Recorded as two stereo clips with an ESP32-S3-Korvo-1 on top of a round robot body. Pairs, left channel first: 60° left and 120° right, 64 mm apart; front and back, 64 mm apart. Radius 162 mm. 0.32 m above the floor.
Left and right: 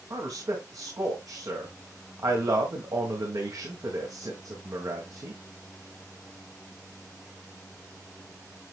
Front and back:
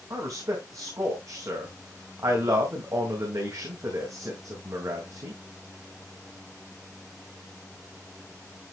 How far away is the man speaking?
About 3.5 m.